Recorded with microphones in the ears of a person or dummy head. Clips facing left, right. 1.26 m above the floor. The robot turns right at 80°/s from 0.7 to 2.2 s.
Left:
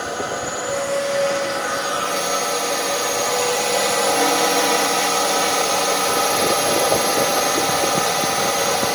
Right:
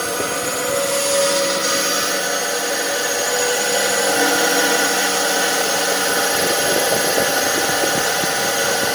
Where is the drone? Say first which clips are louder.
Right 2 dB; 135° right; by 8.9 s 15° right.